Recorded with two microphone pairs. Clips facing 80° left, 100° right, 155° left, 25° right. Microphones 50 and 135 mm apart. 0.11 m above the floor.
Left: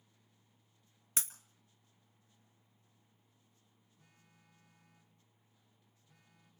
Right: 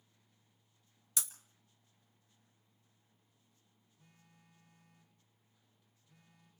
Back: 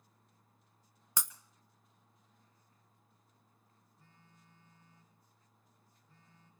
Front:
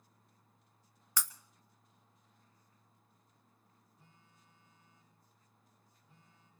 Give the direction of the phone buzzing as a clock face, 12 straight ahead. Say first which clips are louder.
Right 2 dB, back 3 dB; 10 o'clock.